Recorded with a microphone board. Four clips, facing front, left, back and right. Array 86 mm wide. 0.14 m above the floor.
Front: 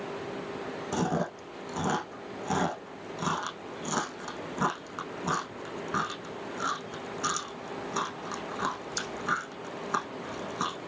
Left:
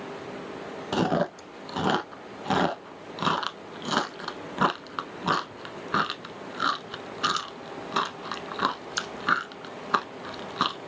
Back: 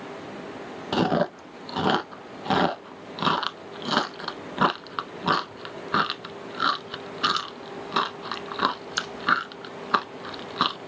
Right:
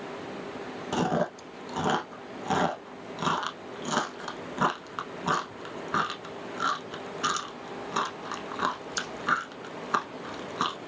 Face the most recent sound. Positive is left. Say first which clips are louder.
# left 2 dB, back 7 dB
turn(degrees=160)